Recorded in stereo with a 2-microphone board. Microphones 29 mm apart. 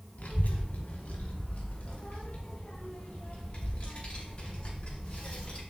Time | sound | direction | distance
0.2 | a child speaking | 60° left (ahead or behind) | 1.7 m